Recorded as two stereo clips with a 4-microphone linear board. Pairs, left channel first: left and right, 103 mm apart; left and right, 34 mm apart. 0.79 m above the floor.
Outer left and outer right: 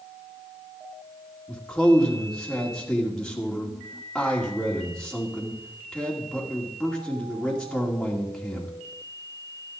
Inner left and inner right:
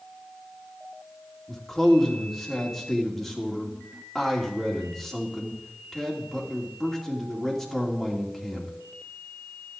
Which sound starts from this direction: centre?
A man speaking, at 1.5 s.